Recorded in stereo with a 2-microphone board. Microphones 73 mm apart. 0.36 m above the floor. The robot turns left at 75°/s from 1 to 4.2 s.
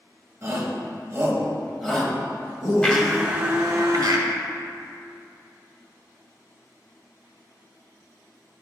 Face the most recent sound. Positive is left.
turn(degrees=-85)